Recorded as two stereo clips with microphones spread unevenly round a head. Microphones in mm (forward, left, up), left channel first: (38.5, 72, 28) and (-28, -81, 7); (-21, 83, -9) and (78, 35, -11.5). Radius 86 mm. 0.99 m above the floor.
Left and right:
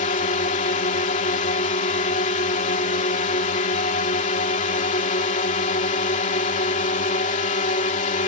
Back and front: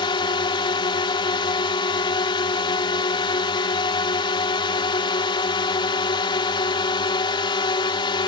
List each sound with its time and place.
0.0 s a drone: 115° left